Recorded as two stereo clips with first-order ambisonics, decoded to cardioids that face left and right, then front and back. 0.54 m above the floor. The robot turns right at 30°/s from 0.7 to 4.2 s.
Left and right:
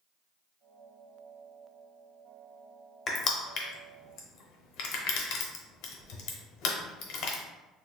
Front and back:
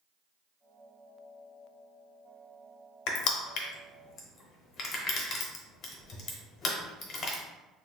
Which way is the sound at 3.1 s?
25° left.